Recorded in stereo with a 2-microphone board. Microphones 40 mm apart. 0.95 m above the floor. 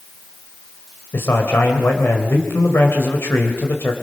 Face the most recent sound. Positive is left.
turn(degrees=70)  # may be behind; listen again after turning